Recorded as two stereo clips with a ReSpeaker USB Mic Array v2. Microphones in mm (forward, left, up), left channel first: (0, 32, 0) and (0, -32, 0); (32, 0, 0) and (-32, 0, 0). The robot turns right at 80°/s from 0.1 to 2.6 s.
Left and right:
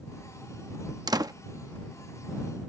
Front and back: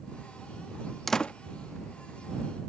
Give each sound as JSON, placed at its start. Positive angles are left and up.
{"t": 1.1, "sound": "a door slam", "azimuth_deg": -85}